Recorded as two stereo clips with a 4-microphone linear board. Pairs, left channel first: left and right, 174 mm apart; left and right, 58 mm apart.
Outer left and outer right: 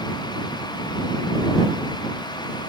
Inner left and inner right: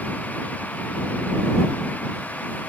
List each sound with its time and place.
Only background noise.